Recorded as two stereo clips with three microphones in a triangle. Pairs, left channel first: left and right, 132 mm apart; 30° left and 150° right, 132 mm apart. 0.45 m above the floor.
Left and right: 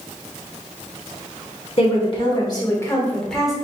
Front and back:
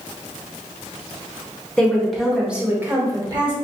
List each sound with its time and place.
1.8 s a woman speaking: 110° left, 1.5 m; by 3.5 s 175° right, 1.2 m